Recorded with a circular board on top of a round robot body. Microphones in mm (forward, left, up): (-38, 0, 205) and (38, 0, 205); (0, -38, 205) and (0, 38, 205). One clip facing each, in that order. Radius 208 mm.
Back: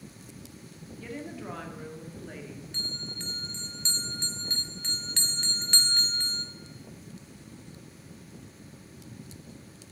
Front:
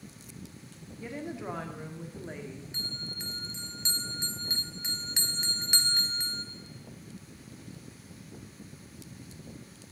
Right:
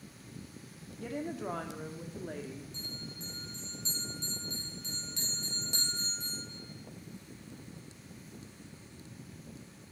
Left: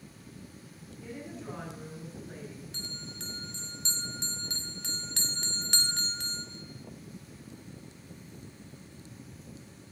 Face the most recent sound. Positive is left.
turn(degrees=75)